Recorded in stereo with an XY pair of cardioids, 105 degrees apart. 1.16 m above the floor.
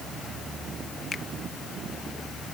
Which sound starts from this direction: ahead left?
A finger snap, at 1.1 s.